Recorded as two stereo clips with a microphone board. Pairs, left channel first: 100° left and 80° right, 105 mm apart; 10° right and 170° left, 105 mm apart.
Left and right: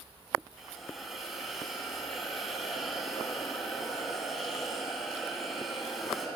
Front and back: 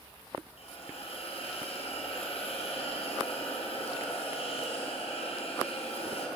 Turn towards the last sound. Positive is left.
turn(degrees=10)